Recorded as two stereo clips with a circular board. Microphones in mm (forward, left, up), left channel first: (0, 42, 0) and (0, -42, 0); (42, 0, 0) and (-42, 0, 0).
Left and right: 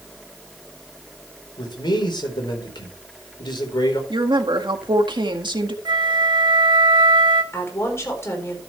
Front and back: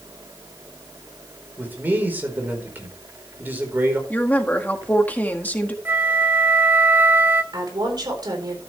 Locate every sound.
1.6 s a man speaking: 115° left, 4 m
4.1 s a woman speaking: 70° right, 1.7 m
5.8 s a flute: 115° right, 1.1 m
7.5 s a woman speaking: 145° left, 4 m